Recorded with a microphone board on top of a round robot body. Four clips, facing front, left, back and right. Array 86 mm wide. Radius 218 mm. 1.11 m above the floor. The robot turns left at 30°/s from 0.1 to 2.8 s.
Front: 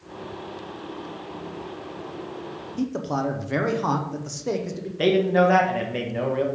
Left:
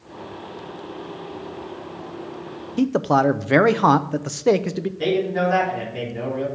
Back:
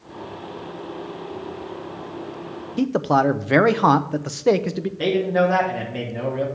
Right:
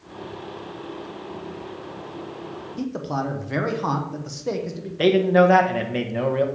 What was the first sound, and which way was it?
A man speaking, 135° left.